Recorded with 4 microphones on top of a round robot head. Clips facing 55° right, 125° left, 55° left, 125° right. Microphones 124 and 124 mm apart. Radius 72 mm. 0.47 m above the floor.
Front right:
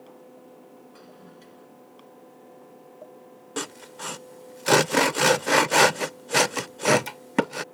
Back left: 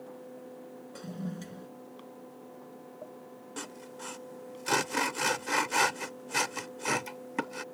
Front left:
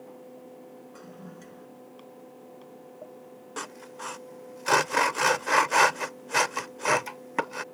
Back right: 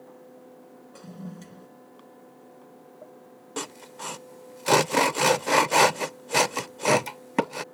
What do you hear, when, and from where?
0.9 s a toilet flushing: 170° left
3.6 s sawing: 65° right